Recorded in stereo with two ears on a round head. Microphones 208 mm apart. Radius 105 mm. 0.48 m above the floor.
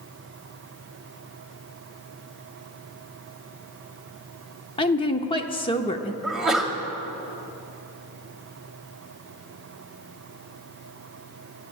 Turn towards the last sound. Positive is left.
turn(degrees=-5)  # may be behind; listen again after turning